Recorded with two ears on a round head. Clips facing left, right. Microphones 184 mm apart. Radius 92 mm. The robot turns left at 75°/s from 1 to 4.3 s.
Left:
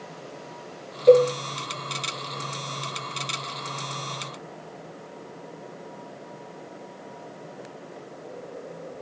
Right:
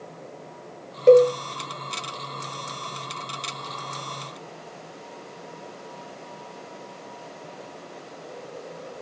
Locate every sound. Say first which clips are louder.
1.1 s a cowbell: right 2 dB; 50° right (ahead or behind), 0.8 m; by 1.3 s 40° right (ahead or behind), 0.8 m